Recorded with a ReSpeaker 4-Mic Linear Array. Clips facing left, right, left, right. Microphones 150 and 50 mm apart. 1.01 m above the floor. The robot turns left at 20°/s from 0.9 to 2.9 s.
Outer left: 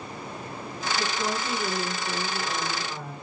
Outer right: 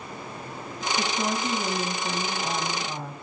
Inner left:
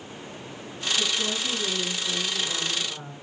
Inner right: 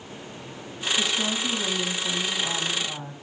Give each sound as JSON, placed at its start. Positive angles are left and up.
{"t": 1.0, "sound": "a woman speaking", "azimuth_deg": -75, "distance_m": 7.5}